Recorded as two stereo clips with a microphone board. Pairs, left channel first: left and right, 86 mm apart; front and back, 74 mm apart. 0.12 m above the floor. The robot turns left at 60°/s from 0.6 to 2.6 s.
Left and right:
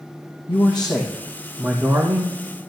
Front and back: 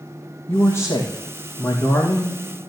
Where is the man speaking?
70° left, 3 m; by 2.4 s 40° right, 3 m.